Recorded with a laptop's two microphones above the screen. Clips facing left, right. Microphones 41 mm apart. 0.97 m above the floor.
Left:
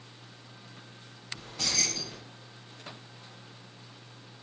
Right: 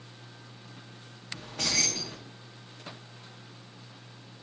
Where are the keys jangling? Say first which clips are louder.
Right 2 dB; 65° right (ahead or behind), 0.7 m.